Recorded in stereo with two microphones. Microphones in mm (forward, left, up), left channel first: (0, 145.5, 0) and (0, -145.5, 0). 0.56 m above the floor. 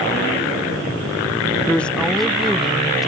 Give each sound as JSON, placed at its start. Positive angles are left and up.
{"t": 1.7, "sound": "a woman speaking", "side_deg": 5}